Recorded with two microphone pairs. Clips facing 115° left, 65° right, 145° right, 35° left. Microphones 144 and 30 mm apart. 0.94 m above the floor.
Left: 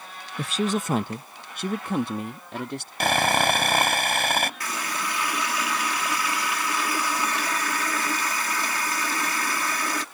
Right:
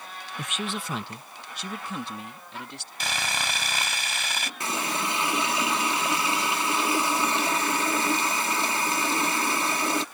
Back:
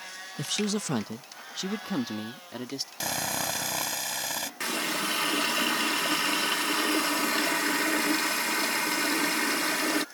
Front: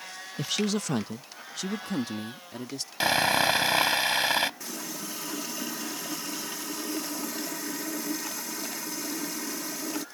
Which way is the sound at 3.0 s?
80° left.